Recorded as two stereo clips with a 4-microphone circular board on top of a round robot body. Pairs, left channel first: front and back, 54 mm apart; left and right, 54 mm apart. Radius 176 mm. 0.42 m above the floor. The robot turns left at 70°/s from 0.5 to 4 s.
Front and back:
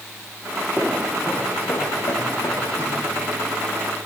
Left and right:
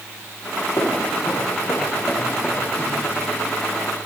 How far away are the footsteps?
About 6.5 m.